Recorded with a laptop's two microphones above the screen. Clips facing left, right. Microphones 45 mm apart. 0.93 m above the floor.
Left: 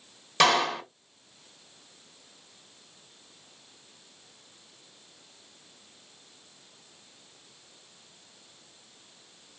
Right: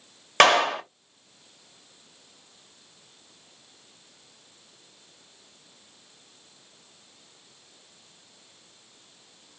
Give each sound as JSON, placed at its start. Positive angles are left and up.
{"t": 0.4, "sound": "a clap", "side_deg": -55, "distance_m": 1.2}